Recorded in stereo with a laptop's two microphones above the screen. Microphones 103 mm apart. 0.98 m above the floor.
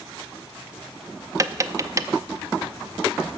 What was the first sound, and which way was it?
Tapping, 30° right (ahead or behind).